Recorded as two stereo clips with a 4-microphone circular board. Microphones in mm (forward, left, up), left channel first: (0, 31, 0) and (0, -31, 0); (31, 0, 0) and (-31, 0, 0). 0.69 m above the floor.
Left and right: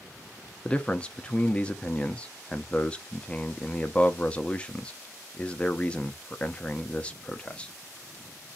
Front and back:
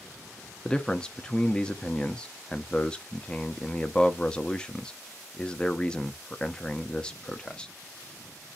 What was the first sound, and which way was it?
A man speaking, 55° left.